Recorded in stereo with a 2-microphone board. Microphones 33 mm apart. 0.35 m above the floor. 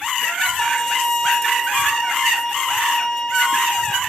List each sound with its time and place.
0.6 s a violin: 20° left (ahead or behind), 1.2 m